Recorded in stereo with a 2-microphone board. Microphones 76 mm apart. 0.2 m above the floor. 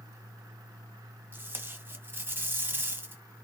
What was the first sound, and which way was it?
Tape being pulled, 30° right (ahead or behind).